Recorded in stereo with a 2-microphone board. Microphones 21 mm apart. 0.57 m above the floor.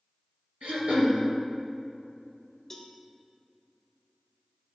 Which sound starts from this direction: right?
Throat clearing, at 0.6 s.